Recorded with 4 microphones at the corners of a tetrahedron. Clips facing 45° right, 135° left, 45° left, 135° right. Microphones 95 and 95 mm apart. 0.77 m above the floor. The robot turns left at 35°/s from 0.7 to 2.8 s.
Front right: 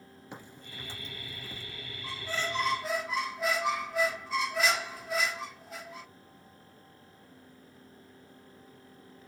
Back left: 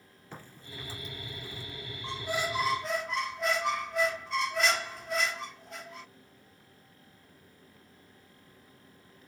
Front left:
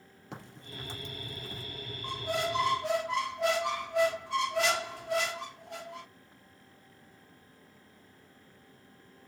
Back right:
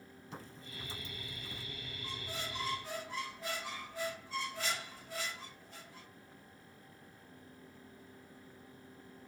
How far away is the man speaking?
No man speaking in this recording.